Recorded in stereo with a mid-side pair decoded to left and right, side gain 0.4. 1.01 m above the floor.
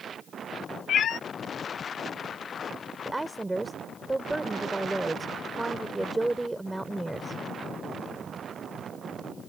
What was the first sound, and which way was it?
A cat meowing, 70° left.